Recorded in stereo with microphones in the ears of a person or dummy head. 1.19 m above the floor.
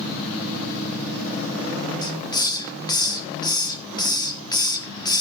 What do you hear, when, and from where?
2.0 s a hiss: 15° left (ahead or behind), 1.1 m